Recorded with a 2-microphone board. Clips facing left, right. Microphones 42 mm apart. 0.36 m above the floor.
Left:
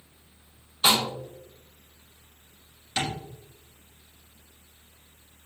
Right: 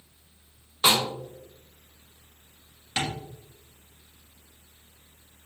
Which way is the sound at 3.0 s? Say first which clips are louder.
Even; 30° right (ahead or behind).